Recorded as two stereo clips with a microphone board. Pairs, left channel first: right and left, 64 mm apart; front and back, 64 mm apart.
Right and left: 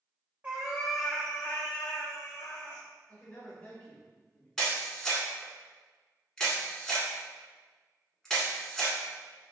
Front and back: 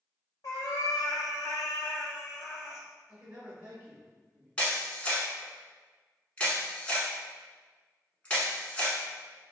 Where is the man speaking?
120° right, 1.7 m.